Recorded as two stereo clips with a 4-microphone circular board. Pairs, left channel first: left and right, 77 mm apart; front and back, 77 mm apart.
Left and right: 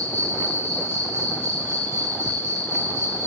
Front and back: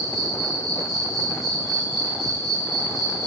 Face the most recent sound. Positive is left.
turn(degrees=160)